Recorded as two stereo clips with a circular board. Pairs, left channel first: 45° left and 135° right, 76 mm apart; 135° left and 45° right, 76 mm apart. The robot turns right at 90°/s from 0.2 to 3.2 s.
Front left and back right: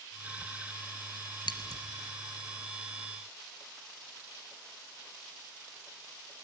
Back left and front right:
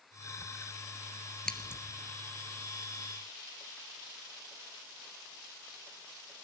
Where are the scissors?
55° left, 2.5 m; by 1.8 s 85° left, 2.5 m.